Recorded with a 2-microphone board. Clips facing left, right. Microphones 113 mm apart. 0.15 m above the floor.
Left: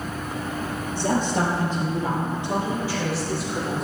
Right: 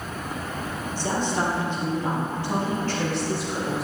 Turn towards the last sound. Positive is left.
turn(degrees=-5)  # may be behind; listen again after turning